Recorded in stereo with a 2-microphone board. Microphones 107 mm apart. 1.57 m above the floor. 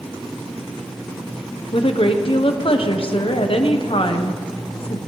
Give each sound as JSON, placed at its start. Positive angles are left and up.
{"t": 1.7, "sound": "a woman speaking", "side_deg": 60, "distance_m": 1.2}